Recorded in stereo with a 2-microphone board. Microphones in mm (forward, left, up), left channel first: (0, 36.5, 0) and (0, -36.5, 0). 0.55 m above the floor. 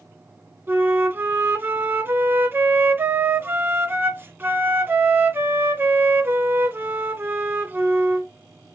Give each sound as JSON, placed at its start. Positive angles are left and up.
{"t": 0.7, "sound": "a flute", "side_deg": -30, "distance_m": 0.8}